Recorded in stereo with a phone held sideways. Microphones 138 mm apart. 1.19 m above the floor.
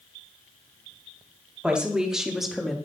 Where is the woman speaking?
5° right (ahead or behind), 2 m; by 2.8 s centre (ahead or behind), 1.5 m.